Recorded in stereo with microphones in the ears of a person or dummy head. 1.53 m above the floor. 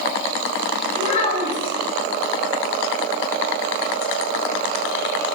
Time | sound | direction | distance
0.9 | a child speaking | 40° left (ahead or behind) | 0.7 m